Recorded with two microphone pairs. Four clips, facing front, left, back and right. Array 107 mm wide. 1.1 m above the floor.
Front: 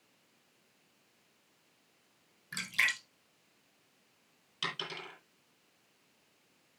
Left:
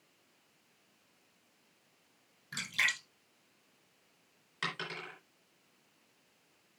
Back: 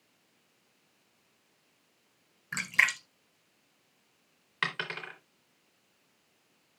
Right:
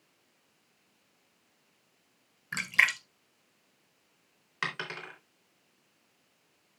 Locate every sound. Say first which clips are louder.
2.5 s a splash: right 7 dB, back 5 dB; 130° right, 1.3 m
4.6 s a dropped coin: right 3 dB, back 6 dB; 145° right, 3 m